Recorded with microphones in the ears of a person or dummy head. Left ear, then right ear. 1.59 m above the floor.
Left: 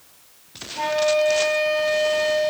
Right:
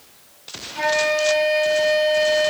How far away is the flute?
About 1.4 m.